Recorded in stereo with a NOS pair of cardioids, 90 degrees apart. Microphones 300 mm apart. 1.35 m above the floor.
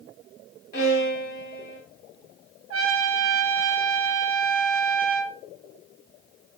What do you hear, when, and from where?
0.7 s a violin: 30° left, 1.9 m
2.7 s a trumpet: 50° right, 0.6 m